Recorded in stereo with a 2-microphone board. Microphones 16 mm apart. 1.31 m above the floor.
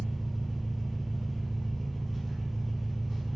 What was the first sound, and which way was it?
An engine running, centre (ahead or behind).